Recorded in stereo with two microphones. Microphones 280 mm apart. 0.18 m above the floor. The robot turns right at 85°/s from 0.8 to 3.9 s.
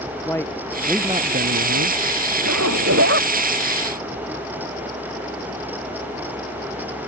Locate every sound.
0.3 s a man speaking: 170° left; by 2.0 s 90° right
2.4 s a zipper: 105° right; by 3.3 s 30° right